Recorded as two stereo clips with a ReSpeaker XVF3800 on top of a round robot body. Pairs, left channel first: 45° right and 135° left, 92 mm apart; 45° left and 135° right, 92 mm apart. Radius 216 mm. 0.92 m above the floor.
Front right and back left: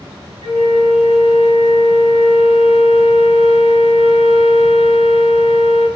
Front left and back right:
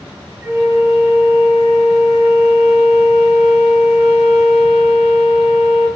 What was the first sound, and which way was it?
A flute, 155° left.